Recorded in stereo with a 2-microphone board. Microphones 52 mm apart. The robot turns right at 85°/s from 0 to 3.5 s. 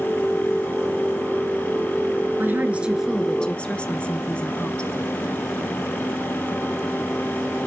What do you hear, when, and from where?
2.4 s a woman speaking: 65° right, 1.9 m; by 4.9 s 30° left, 1.9 m